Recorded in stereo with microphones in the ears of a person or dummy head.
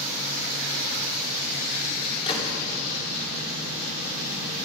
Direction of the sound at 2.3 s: 30° left (ahead or behind).